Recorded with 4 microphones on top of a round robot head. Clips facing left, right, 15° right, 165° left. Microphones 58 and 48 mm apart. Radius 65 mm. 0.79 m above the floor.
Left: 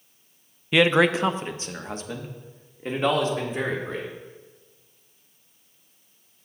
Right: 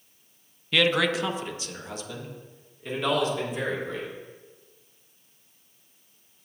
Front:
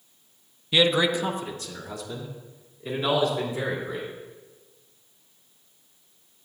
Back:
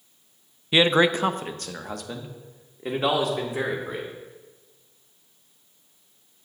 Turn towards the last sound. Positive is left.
turn(degrees=145)